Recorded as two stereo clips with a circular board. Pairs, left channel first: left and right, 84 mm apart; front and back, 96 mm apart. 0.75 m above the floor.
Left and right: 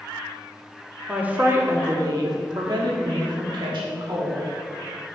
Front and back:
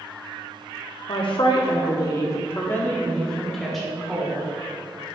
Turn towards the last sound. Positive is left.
turn(degrees=-95)